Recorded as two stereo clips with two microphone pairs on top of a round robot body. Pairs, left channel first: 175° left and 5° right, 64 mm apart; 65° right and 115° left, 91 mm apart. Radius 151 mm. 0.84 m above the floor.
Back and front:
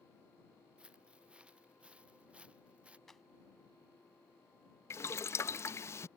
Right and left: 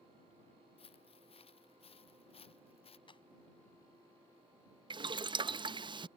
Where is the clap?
95° right.